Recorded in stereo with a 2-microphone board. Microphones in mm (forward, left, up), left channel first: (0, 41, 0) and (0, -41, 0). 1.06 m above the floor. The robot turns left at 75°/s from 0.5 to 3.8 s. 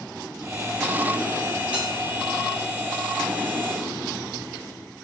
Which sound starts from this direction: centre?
A bell, at 1.7 s.